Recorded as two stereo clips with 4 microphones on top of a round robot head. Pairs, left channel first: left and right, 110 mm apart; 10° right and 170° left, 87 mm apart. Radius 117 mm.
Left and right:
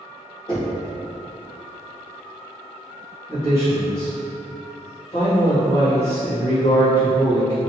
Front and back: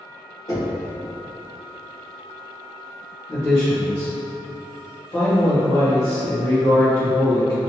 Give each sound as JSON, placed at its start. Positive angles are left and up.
{"t": 0.5, "sound": "knocking", "azimuth_deg": 35, "distance_m": 1.3}
{"t": 3.3, "sound": "a man speaking", "azimuth_deg": 40, "distance_m": 1.3}